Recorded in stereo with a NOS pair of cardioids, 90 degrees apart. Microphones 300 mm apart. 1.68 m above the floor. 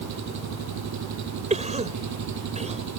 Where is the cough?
25° right.